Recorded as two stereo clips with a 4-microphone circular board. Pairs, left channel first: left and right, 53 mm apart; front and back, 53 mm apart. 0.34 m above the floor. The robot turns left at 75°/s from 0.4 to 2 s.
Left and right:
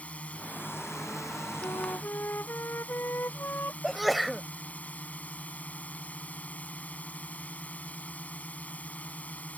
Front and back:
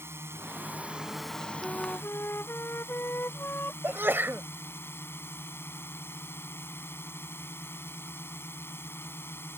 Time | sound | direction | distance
0.0 | a drone | 150° left | ?
1.6 | a flute | 75° left | ?
3.8 | a sneeze | 175° right | ?